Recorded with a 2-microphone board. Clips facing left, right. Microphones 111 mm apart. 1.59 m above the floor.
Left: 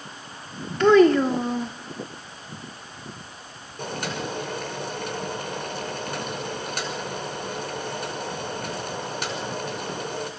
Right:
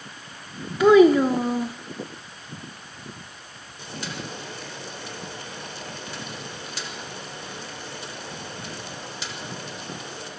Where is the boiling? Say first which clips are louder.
Left 5 dB; 55° left (ahead or behind), 5.5 m.